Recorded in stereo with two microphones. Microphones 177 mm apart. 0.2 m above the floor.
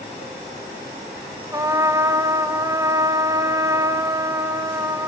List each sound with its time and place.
1.5 s a trumpet: 20° right (ahead or behind), 1.7 m